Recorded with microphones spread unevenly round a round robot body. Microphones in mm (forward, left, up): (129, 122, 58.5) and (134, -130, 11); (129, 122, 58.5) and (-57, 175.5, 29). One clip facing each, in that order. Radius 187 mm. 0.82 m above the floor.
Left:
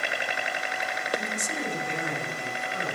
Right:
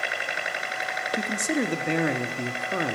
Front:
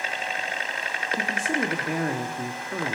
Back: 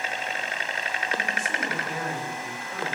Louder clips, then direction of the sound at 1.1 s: Right 8 dB, front 7 dB; 75° right.